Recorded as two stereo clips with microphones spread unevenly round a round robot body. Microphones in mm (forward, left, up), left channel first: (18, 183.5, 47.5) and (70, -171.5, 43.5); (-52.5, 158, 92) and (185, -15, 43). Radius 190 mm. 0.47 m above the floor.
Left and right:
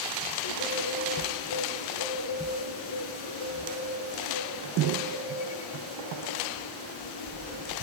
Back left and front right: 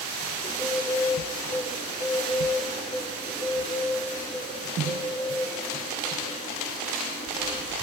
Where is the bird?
65° left, 5.5 m.